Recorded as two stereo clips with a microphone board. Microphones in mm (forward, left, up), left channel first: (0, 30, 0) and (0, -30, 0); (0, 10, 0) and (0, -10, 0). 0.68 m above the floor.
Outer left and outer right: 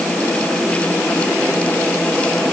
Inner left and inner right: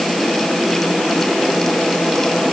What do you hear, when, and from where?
Only background noise.